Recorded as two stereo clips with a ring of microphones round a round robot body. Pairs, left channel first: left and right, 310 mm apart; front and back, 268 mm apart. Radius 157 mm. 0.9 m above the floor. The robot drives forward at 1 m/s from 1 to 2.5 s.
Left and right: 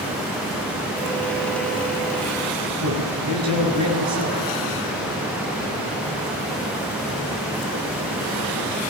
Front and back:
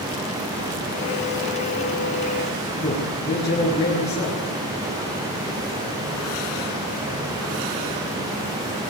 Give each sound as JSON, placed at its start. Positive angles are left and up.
{"t": 2.8, "sound": "a man speaking", "azimuth_deg": -80, "distance_m": 10.0}